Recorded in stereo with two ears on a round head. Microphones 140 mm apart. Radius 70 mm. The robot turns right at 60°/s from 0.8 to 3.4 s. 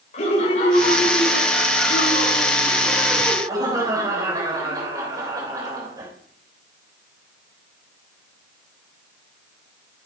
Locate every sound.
0.1 s laughter: 50° left, 3.5 m; by 6.1 s 155° right, 3.5 m